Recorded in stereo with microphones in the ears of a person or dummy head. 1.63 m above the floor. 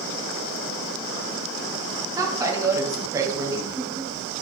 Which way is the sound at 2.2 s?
20° right (ahead or behind).